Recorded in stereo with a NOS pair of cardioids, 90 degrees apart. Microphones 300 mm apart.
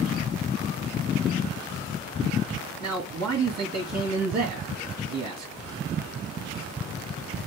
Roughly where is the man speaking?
Ahead right.